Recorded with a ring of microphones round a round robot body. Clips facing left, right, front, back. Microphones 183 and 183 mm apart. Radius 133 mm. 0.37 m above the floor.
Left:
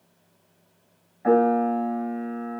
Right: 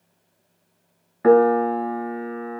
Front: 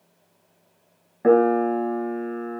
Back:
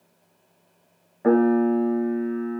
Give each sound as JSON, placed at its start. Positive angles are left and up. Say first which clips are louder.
{"t": 1.2, "sound": "a piano", "louder": "right 4 dB, front 1 dB", "azimuth_deg": -75, "distance_m": 1.1}